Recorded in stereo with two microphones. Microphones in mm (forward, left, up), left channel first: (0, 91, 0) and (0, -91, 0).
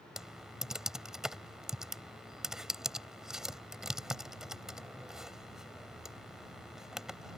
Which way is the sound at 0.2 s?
5° right (ahead or behind).